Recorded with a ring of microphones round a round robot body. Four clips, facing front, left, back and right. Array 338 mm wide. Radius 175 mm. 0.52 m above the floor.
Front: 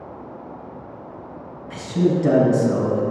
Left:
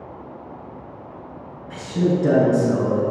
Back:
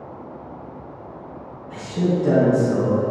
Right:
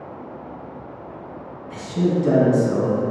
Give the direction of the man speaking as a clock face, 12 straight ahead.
11 o'clock.